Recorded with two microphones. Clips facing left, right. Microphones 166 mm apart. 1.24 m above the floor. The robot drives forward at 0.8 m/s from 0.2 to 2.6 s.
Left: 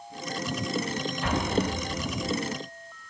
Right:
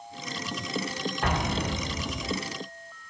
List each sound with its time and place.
1.2 s an explosion: 60° right (ahead or behind), 1.4 m; by 2.4 s 65° right (ahead or behind), 1.3 m